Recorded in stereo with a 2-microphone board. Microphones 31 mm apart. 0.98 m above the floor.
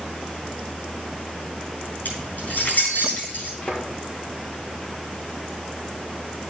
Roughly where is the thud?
Left.